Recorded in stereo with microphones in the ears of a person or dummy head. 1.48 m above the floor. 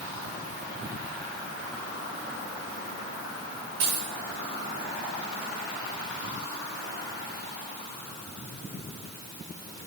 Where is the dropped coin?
65° right (ahead or behind), 6.5 m.